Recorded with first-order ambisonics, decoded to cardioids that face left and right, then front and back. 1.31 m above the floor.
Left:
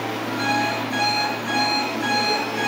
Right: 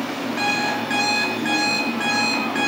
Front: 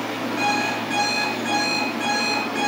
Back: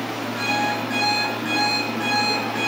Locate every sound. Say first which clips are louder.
0.4 s an alarm clock: right 1 dB, even; 80° right, 4 m